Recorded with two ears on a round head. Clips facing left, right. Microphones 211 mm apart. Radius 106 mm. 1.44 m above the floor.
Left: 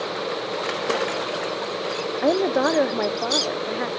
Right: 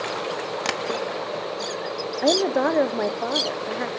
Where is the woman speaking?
Centre (ahead or behind), 0.7 m.